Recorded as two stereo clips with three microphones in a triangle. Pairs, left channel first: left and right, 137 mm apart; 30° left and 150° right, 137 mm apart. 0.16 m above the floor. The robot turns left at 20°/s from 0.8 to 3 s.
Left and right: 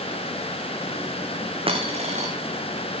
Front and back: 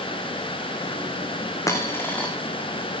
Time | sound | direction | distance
1.7 | a dropped coin | 40° right | 1.8 m